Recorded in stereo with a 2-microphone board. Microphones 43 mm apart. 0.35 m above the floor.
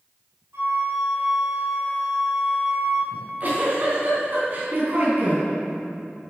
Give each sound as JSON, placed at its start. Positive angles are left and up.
{"t": 0.5, "sound": "a flute", "side_deg": -75, "distance_m": 2.5}
{"t": 3.1, "sound": "a giggle", "side_deg": -45, "distance_m": 3.5}